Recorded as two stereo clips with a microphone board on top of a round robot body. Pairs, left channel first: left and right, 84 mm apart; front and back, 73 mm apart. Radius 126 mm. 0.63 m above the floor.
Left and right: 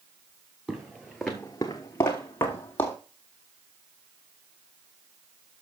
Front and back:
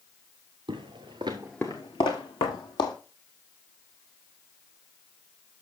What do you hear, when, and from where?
0.7 s footsteps: 170° right, 1.0 m; by 3.0 s 20° left, 1.6 m